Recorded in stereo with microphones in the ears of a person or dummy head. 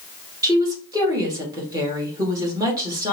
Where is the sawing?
No sawing in this recording.